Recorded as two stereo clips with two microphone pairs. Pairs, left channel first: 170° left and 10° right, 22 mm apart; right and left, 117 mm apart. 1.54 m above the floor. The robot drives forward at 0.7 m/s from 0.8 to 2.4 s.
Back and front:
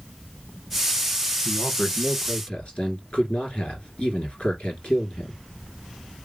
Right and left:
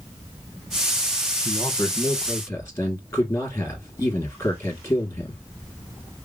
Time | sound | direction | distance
1.4 | a man speaking | 145° right | 1.0 m